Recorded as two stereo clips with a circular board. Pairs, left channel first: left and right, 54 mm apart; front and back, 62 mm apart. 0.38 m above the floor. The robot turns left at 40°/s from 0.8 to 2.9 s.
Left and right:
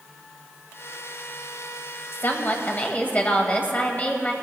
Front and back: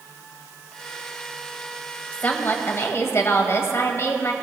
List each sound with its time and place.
2.1 s a woman speaking: 65° left, 1.7 m; by 4.3 s 35° left, 1.7 m